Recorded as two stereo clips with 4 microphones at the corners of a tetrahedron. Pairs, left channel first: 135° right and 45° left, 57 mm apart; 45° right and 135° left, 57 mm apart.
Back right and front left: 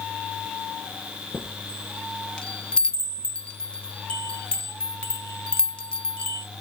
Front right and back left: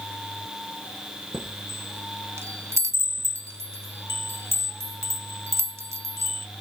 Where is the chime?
155° left, 0.8 m.